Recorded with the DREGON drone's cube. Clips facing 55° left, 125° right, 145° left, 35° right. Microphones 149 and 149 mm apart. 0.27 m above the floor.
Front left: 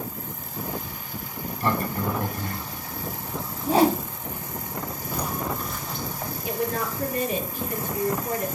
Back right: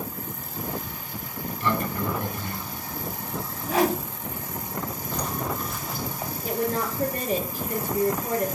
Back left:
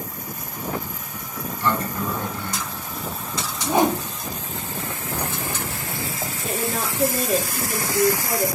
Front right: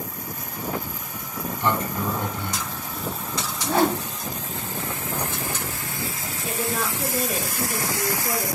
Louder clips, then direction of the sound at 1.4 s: Front left 1 dB, even; 30° left.